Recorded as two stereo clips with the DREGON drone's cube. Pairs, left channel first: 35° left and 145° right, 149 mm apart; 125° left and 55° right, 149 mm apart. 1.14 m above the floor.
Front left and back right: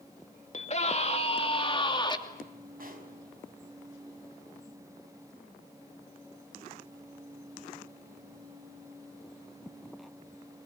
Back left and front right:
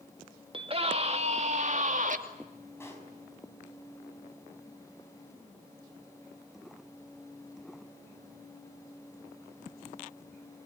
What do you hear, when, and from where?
0.5 s a scream: 5° right, 2.5 m; by 2.2 s 25° right, 2.5 m
2.8 s a pop: 165° right, 5 m